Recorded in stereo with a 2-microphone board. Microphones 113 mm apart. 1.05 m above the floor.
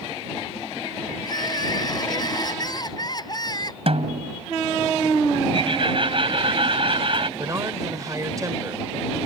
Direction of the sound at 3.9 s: 55° right (ahead or behind).